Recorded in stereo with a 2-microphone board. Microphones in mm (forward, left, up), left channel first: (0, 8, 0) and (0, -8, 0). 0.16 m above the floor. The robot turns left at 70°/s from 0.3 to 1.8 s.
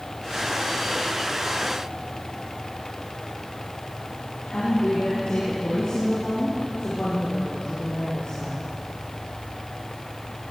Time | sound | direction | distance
4.5 | a woman speaking | 75° left (ahead or behind) | 6 m